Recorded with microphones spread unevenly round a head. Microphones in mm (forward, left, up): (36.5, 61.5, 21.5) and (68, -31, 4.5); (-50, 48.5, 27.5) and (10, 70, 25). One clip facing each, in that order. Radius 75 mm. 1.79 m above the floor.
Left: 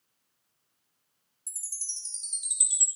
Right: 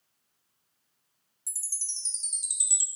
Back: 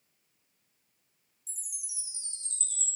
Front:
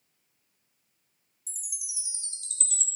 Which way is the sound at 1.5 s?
15° right.